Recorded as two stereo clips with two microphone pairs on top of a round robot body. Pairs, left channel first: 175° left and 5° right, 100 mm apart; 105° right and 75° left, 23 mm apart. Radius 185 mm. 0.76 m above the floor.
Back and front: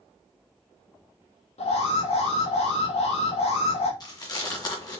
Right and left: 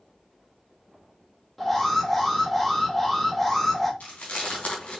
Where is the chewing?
130° right, 2.5 m.